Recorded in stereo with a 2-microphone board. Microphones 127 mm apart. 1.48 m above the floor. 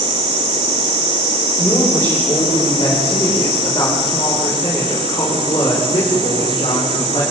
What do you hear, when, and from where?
1.6 s a woman speaking: 25° left (ahead or behind), 7.5 m; by 7.2 s 50° left (ahead or behind), 5.5 m